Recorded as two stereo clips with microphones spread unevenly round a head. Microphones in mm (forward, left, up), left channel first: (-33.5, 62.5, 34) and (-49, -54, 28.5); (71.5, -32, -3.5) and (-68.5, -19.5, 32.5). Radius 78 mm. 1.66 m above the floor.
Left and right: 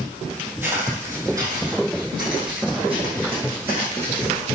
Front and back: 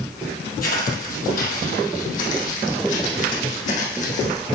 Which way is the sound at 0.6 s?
20° right.